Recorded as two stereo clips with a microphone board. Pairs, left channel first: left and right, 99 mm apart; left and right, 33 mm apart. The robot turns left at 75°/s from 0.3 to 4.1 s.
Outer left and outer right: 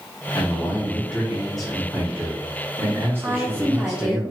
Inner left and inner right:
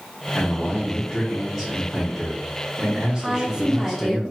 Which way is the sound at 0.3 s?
30° left (ahead or behind).